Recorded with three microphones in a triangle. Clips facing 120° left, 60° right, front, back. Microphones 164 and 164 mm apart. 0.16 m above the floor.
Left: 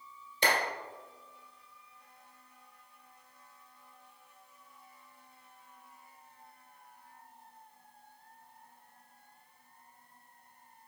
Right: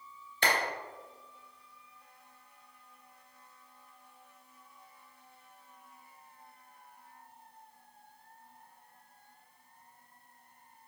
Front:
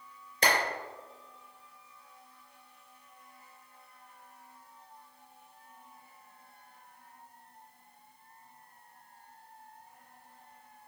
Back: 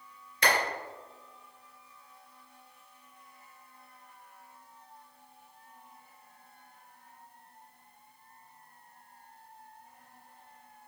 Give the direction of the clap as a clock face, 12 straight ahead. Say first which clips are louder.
Left 1 dB, even; 10 o'clock.